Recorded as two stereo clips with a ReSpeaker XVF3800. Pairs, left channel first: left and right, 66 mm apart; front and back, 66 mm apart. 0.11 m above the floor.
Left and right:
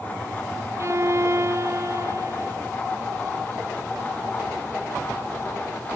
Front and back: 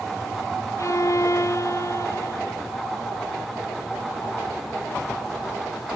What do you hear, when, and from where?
0.8 s a violin: 40° right